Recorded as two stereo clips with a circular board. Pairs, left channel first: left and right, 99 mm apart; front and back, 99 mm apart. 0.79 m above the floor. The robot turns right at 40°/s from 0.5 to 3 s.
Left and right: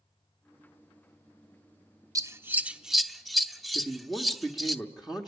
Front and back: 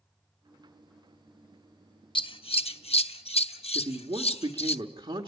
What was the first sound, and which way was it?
Scissors, 35° right.